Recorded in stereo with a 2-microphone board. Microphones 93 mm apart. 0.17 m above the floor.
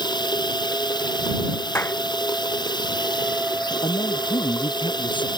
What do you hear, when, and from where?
0.0 s running water: 50° left (ahead or behind)
1.8 s a clap: 25° left (ahead or behind)
3.8 s a man speaking: 60° left (ahead or behind)